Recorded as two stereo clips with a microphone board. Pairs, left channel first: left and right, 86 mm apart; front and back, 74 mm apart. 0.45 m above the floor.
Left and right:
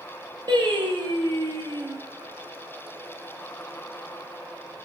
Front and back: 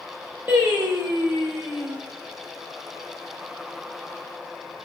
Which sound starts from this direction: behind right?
Singing, at 0.5 s.